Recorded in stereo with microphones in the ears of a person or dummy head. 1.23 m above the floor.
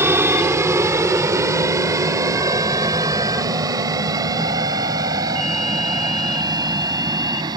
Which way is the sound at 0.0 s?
10° right (ahead or behind).